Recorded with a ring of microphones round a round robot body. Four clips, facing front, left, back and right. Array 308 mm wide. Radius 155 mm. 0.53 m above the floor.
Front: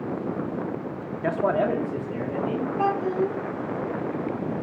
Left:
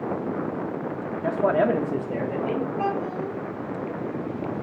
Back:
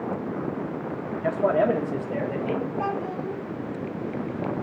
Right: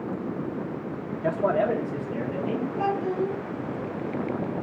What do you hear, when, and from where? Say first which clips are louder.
1.2 s a man speaking: left 2 dB, back 1 dB; 15° right, 0.9 m; by 2.7 s 115° left, 2 m
2.8 s a child speaking: right 1 dB, front 5 dB; 20° left, 3.5 m